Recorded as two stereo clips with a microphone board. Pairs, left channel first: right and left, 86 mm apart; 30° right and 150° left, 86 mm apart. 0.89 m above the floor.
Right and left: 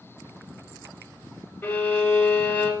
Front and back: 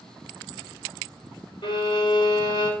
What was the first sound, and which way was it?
A violin, 25° right.